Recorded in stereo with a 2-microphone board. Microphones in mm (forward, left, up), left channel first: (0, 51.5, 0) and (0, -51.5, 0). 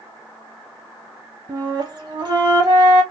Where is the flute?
45° right (ahead or behind), 1.2 m.